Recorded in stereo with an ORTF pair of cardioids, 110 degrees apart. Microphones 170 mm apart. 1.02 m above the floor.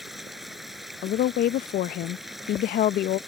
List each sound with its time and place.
0.0 s running water: straight ahead
1.0 s a woman speaking: 55° left